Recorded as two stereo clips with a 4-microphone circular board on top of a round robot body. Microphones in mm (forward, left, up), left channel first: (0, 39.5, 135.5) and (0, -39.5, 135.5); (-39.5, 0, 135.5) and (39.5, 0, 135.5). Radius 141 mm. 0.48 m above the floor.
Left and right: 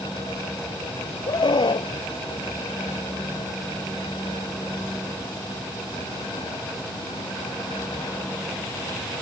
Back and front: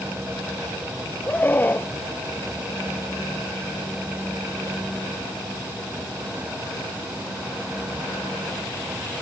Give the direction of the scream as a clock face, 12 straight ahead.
8 o'clock.